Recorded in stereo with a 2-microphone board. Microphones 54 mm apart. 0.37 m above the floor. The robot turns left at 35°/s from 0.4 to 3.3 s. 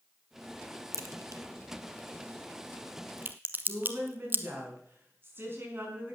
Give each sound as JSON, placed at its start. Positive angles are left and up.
{"t": 0.9, "sound": "a crack", "side_deg": -60, "distance_m": 1.0}
{"t": 3.7, "sound": "a woman speaking", "side_deg": -40, "distance_m": 4.5}